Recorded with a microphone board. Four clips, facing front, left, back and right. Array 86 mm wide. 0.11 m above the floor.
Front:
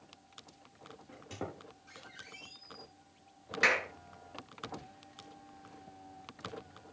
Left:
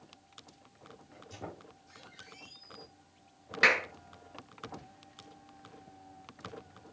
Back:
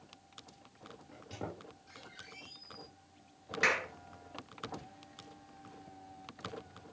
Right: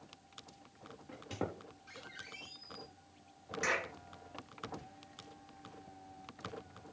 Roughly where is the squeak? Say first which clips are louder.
Right 5 dB, front 1 dB; right.